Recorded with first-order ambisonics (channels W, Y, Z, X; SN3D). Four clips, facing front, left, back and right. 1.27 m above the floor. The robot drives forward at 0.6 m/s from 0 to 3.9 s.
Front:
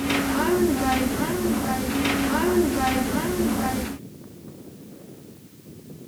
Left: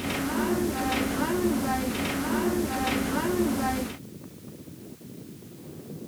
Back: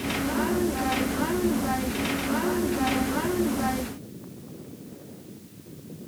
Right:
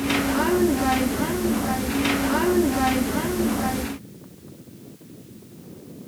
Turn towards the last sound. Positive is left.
No sound to turn to.